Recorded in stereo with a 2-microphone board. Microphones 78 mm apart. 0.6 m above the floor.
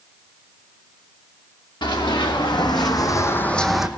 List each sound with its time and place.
1.8 s running footsteps: 75° left (ahead or behind), 2.5 m; by 3.9 s 10° right (ahead or behind), 1.2 m